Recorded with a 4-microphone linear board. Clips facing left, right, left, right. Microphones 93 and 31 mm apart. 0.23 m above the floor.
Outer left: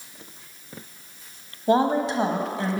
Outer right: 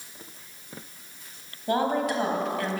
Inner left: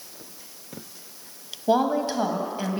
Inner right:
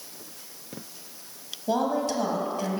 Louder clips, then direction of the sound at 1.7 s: Outer left 4 dB, inner left 4 dB; 25° left (ahead or behind).